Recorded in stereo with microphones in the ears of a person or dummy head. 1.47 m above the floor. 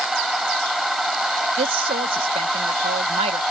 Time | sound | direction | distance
0.0 | a machine running | centre (ahead or behind) | ?
1.6 | a woman speaking | 35° right (ahead or behind) | ?